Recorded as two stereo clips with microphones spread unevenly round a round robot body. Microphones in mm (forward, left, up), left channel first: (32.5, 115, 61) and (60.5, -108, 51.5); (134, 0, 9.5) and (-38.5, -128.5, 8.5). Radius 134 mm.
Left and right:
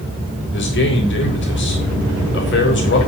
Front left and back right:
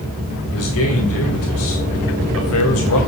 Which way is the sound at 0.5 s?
65° left.